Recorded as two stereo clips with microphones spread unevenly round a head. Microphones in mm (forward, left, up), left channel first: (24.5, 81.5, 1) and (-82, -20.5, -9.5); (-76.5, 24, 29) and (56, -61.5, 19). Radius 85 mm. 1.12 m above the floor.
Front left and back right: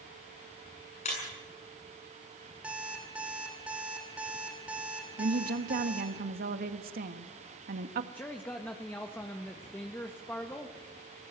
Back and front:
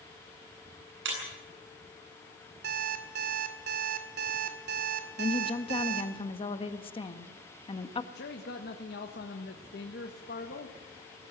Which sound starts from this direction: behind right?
A woman speaking, at 5.2 s.